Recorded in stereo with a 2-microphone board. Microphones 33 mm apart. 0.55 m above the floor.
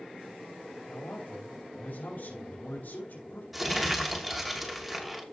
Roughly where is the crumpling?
Centre.